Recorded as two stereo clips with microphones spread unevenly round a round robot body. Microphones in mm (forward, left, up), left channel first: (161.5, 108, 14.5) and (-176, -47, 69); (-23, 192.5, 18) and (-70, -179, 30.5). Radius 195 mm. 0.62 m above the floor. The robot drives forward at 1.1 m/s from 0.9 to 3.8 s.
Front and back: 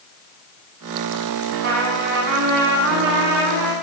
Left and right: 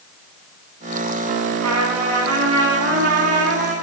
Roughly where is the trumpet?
Behind right.